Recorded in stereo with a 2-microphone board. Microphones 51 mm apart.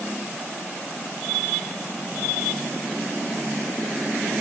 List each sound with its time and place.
Only background noise.